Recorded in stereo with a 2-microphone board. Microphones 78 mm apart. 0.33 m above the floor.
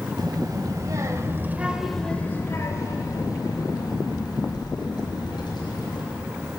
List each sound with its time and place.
0.2 s a child speaking: 65° right (ahead or behind), 1.4 m; by 6.0 s 80° left, 3 m